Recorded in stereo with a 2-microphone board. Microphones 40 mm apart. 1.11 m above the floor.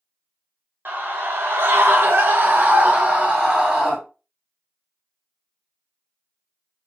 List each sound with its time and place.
0.8 s a scream: 60° right (ahead or behind), 1.3 m; by 4.0 s 25° right (ahead or behind), 1.5 m